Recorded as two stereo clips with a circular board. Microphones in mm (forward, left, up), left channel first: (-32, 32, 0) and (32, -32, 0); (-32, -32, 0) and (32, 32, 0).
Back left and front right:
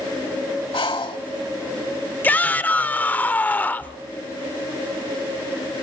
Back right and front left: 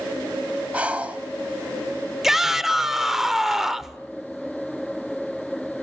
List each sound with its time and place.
0.7 s breathing: 120° left, 0.9 m
2.2 s a shout: 125° left, 0.8 m